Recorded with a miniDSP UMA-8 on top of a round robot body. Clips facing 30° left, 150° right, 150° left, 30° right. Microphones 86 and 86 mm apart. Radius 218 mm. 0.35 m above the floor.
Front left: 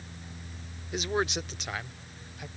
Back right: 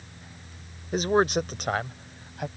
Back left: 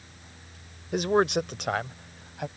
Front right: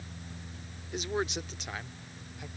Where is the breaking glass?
I don't hear breaking glass.